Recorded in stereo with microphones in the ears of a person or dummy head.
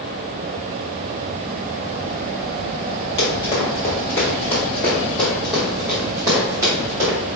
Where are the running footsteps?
30° left (ahead or behind), 1.7 m; by 7.2 s 20° right (ahead or behind), 1.8 m.